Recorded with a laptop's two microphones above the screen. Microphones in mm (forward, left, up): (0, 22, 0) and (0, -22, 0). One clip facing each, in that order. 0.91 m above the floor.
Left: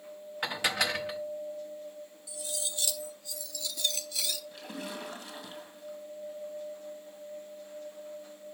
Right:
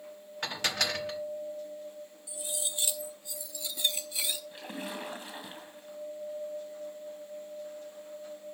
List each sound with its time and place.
0.4 s dishes clattering: 15° left (ahead or behind), 0.8 m
2.3 s cutlery clinking: 20° right (ahead or behind), 0.7 m
4.5 s a splash: 20° right (ahead or behind), 2 m